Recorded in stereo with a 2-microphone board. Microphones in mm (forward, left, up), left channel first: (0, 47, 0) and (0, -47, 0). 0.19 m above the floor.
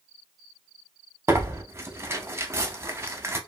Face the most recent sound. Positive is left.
turn(degrees=-30)  # may be behind; listen again after turning